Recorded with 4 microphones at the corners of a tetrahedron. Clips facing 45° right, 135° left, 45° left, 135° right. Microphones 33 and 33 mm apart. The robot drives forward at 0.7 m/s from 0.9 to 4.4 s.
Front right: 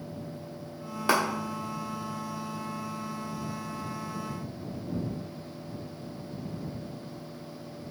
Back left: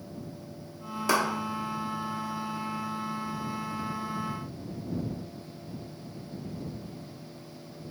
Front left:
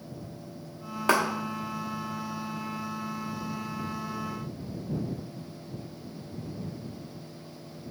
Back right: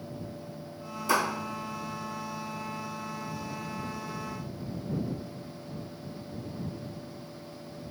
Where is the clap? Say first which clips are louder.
Front right 1 dB, front left 2 dB; 20° left, 1.1 m.